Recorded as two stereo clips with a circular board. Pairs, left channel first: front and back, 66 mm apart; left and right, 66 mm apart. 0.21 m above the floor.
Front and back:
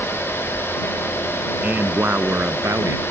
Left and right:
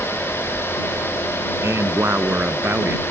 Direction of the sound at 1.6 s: 120° right.